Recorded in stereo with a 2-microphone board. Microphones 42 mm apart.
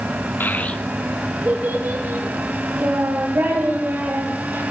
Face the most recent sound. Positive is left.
turn(degrees=-80)